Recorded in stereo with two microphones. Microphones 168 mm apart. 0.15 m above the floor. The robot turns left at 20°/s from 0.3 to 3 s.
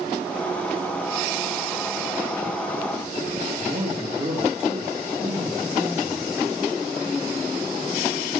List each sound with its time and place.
3.6 s a man speaking: 45° right (ahead or behind), 2 m